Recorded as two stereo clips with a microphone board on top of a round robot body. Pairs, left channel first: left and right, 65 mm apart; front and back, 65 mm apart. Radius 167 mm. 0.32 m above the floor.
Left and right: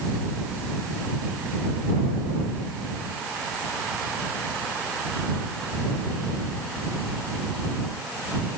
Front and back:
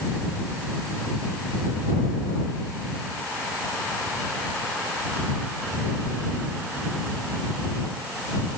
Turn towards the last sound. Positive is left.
No sound to turn to.